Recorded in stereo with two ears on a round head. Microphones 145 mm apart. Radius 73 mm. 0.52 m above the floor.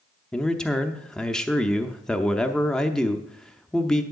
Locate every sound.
0.3 s a man speaking: 5° left (ahead or behind), 0.7 m